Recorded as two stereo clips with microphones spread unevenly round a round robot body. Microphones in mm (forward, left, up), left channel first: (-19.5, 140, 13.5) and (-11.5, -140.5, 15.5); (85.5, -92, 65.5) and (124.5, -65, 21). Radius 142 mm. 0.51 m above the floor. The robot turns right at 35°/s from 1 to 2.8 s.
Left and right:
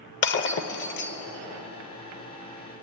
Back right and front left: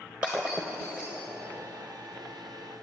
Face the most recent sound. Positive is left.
turn(degrees=-160)